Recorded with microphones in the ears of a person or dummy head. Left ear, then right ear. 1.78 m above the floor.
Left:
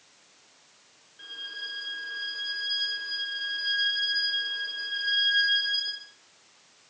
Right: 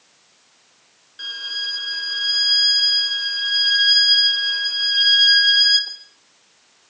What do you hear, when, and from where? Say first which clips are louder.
1.2 s a violin: right 11 dB; 70° right (ahead or behind), 3 m